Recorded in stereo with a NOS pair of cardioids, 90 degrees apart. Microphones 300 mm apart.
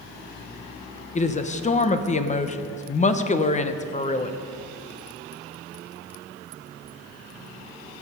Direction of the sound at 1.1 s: 25° left.